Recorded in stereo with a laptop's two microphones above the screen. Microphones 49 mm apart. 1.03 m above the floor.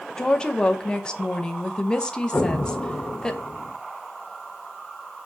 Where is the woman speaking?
20° left (ahead or behind), 0.8 m.